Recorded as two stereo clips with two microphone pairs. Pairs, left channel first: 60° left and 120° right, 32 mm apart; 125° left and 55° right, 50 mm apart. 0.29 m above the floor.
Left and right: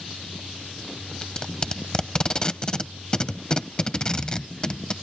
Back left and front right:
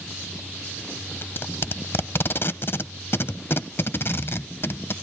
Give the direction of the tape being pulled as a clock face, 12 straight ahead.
8 o'clock.